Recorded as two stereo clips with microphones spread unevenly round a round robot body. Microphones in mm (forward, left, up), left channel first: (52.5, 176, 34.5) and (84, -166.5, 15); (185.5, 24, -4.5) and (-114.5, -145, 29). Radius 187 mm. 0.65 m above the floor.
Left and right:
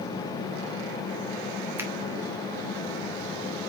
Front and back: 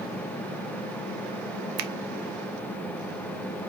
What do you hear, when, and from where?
1.8 s a finger snap: 165° right, 1.1 m